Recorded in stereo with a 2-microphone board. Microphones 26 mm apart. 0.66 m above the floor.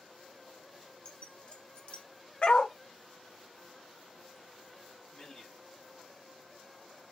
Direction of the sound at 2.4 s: 40° left (ahead or behind).